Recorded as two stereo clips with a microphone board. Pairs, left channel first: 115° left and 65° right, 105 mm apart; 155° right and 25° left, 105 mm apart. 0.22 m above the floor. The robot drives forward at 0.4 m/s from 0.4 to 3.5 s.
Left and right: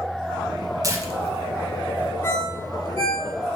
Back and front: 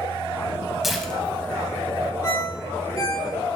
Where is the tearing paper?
60° right, 0.6 m; by 2.1 s 140° right, 0.7 m.